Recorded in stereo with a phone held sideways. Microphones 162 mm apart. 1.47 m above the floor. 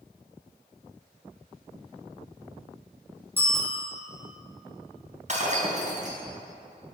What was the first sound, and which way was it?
A bicycle bell, 15° right (ahead or behind).